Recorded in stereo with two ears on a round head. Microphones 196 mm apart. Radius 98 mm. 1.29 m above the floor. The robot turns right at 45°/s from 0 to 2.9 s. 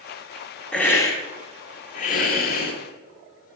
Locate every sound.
0.7 s a hiss: 5° left, 1.3 m; by 2.7 s 95° left, 1.3 m